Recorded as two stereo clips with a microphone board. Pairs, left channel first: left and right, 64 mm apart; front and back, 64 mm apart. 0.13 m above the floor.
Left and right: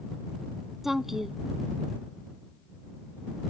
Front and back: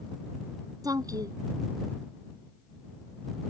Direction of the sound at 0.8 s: 175° right.